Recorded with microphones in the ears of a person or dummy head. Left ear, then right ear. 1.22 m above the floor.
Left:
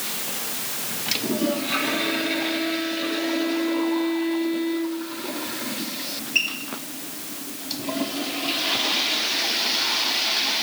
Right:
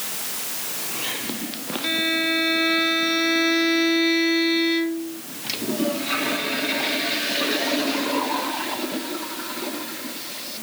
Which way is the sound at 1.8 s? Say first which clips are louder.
Right 2 dB; 75° right (ahead or behind).